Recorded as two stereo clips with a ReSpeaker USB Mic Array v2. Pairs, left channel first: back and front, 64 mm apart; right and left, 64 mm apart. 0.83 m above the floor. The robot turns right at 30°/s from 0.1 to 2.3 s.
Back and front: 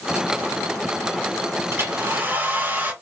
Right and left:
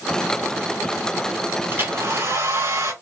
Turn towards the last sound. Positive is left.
turn(degrees=60)